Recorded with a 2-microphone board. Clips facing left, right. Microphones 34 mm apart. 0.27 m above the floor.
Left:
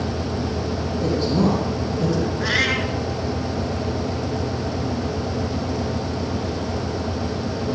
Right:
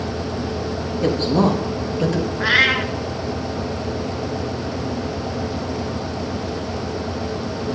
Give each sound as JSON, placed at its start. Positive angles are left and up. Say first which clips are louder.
{"t": 1.0, "sound": "a woman speaking", "louder": "right 3 dB", "side_deg": -70, "distance_m": 6.5}
{"t": 2.4, "sound": "a cat meowing", "louder": "right 7 dB", "side_deg": -25, "distance_m": 1.4}